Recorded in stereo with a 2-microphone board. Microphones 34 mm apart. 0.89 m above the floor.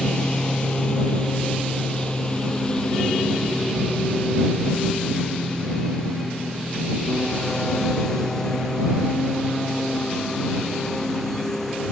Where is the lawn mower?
30° left (ahead or behind); by 11.9 s 10° left (ahead or behind).